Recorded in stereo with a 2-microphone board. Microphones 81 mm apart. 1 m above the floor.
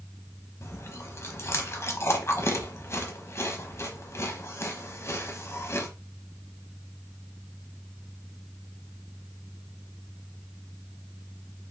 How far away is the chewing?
About 0.9 m.